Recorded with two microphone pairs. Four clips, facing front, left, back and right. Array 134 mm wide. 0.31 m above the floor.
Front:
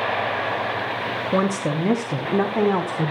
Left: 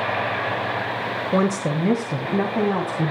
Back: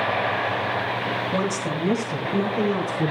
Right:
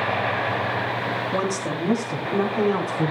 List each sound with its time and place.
1.3 s a woman speaking: 45° left, 1.0 m; by 3.1 s 25° left, 2 m